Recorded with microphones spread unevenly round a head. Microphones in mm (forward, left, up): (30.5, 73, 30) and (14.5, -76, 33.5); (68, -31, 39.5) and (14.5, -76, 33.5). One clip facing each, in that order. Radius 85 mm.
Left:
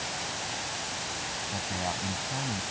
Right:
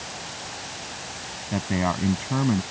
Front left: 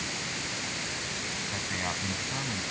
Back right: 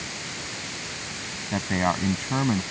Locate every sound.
1.5 s a man speaking: 110° right